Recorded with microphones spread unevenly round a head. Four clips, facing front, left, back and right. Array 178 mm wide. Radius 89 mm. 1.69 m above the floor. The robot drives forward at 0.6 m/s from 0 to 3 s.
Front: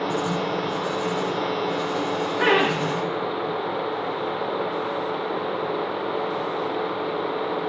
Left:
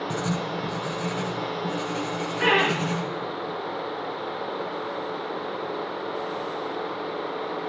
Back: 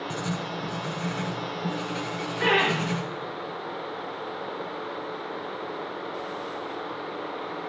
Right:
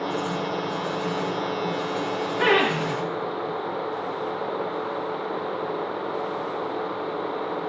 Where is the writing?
105° left, 0.8 m; by 3.0 s 160° left, 2 m.